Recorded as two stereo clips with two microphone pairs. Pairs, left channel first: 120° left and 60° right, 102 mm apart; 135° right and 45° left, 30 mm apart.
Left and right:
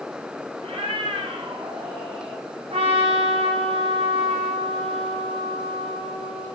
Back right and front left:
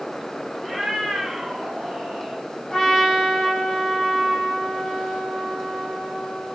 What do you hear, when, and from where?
0.6 s a cat meowing: 45° right, 3 m; by 2.4 s 30° right, 3.5 m
2.7 s a trumpet: 60° right, 6 m